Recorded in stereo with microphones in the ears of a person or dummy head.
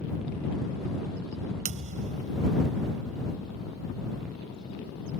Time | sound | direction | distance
1.6 | a thud | 40° right (ahead or behind) | ?